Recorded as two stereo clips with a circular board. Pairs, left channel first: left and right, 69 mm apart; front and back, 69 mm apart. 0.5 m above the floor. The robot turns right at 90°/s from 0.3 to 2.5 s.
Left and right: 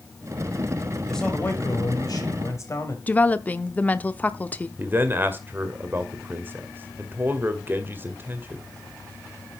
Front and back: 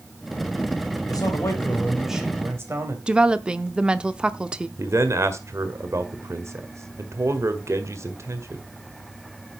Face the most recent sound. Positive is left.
turn(degrees=-145)